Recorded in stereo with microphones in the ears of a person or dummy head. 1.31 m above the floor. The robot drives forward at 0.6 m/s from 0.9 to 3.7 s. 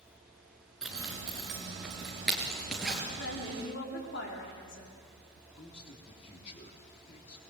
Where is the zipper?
5° left (ahead or behind), 3 m; by 3.0 s centre (ahead or behind), 4 m.